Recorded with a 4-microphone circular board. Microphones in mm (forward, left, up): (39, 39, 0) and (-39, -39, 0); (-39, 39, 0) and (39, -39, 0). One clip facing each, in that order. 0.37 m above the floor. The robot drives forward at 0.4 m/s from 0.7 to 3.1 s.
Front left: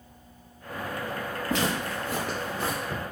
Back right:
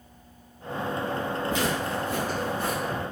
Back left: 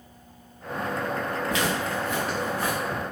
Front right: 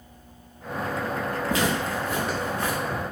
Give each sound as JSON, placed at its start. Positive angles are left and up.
{"t": 1.5, "sound": "footsteps", "azimuth_deg": 15, "distance_m": 1.6}